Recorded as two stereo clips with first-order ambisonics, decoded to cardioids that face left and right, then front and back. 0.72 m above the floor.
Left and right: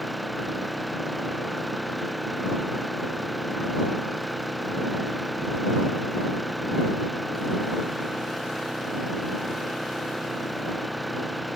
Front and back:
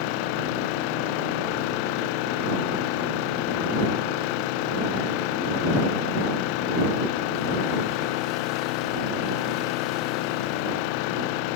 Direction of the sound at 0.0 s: Straight ahead.